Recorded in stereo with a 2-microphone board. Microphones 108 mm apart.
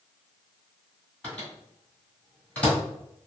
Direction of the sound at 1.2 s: 10° left (ahead or behind).